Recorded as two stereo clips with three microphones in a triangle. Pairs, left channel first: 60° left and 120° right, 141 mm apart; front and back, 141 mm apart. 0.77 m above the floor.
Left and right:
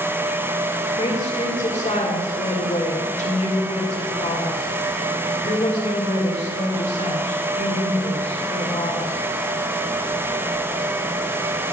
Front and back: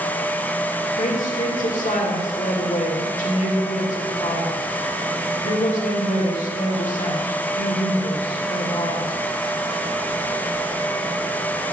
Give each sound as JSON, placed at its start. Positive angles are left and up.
{"t": 1.0, "sound": "a woman speaking", "azimuth_deg": 25, "distance_m": 2.5}